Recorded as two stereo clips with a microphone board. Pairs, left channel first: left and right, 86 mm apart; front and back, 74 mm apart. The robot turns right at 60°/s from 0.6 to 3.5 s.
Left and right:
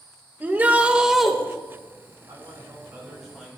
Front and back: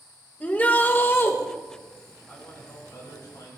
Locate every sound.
0.4 s a shout: 45° right, 1.1 m; by 1.4 s straight ahead, 1.1 m
2.3 s a man speaking: 65° right, 4 m; by 3.6 s 10° left, 4 m